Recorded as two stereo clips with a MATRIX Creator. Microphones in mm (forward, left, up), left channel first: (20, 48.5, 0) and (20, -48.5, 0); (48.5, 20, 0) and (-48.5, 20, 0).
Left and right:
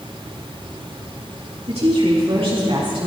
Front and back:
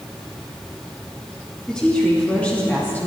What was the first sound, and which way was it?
A woman speaking, 80° right.